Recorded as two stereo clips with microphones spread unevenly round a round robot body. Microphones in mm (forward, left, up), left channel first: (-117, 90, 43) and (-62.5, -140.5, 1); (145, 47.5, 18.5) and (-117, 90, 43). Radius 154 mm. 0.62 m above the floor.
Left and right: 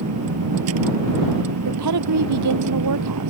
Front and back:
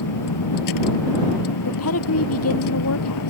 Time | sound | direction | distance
0.0 | a vehicle | 35° right | ?
1.6 | a woman speaking | 55° right | ?